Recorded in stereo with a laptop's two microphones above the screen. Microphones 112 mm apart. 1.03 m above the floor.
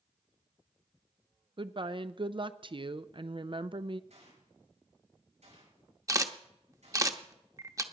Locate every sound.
1.6 s a woman speaking: 45° right (ahead or behind), 0.5 m
4.1 s a gunshot: 80° right, 6 m
6.1 s a camera shutter: 30° right (ahead or behind), 0.9 m